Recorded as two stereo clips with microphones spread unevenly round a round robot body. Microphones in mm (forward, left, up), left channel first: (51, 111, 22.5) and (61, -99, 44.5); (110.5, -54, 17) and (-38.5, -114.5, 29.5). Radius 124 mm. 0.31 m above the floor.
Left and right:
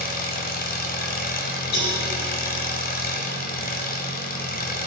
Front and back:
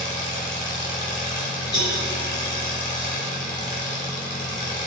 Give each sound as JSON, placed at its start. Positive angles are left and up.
{"t": 0.0, "sound": "an engine running", "azimuth_deg": 55, "distance_m": 0.8}
{"t": 1.7, "sound": "a cowbell", "azimuth_deg": 85, "distance_m": 2.5}